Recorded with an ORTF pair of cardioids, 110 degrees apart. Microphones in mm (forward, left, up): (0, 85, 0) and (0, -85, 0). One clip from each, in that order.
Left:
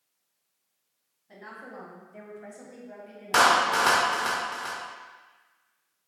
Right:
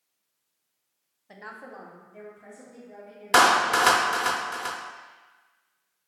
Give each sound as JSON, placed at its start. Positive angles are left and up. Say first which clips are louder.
{"t": 1.3, "sound": "a woman speaking", "louder": "right 1 dB", "azimuth_deg": -40, "distance_m": 0.8}
{"t": 3.3, "sound": "a clap", "louder": "right 2 dB", "azimuth_deg": -25, "distance_m": 0.5}